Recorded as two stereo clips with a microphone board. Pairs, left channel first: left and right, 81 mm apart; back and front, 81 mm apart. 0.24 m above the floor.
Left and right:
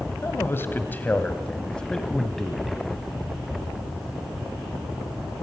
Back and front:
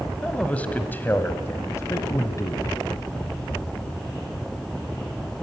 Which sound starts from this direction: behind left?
A man speaking, at 0.2 s.